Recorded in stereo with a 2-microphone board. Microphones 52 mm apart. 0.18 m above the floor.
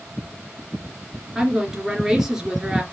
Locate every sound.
1.4 s a woman speaking: 10° right (ahead or behind), 2.5 m